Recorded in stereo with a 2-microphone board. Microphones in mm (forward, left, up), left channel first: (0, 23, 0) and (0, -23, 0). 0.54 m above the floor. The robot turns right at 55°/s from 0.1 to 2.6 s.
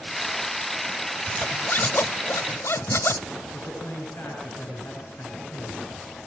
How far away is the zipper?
About 0.6 m.